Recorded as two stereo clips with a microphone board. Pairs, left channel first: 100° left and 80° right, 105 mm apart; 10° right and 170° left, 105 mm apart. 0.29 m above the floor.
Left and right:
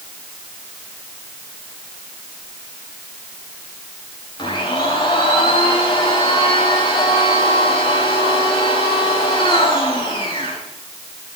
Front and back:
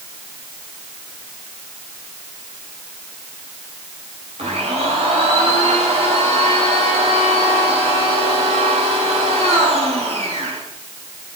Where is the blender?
150° left, 8.5 m.